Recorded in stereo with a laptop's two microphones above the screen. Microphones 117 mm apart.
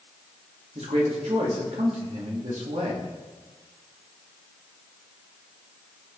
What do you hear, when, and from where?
0.8 s a man speaking: 70° right (ahead or behind), 2.5 m